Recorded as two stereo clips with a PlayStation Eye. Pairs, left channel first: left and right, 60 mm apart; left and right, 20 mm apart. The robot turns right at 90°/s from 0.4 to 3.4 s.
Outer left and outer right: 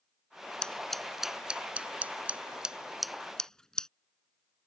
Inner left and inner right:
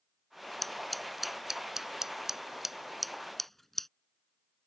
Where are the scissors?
15° left (ahead or behind); by 3.9 s 10° left (ahead or behind).